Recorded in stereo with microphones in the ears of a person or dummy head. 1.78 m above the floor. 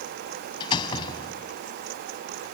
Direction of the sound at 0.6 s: 20° left (ahead or behind).